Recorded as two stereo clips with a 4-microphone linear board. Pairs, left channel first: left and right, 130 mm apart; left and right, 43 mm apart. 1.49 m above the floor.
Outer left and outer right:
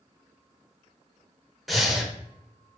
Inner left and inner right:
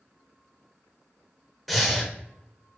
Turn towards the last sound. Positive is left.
turn(degrees=0)  # may be behind; listen again after turning